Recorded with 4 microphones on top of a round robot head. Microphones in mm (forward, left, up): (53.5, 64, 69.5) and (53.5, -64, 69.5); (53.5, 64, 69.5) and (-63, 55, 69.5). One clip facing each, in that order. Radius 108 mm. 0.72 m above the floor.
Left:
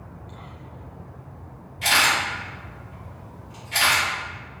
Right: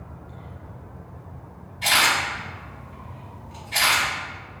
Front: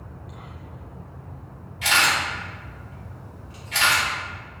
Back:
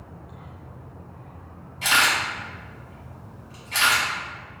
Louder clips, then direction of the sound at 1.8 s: Even, even; 135° left.